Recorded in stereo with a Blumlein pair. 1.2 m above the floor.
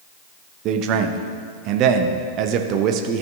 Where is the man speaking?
35° right, 0.9 m.